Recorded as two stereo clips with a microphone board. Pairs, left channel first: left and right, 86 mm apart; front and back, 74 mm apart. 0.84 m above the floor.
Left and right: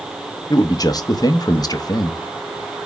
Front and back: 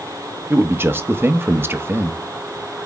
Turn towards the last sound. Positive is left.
turn(degrees=125)